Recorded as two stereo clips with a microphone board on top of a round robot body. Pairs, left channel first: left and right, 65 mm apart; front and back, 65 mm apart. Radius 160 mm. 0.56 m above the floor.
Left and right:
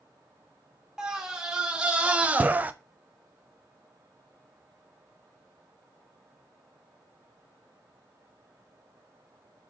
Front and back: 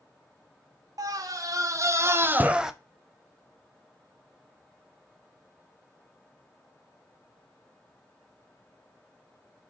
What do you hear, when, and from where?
1.0 s a scream: 170° right, 2.5 m; by 2.7 s 100° right, 1.1 m